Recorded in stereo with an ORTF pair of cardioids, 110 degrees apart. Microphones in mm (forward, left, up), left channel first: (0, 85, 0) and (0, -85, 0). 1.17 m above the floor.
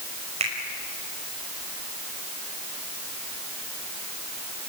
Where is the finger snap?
40° right, 5 m.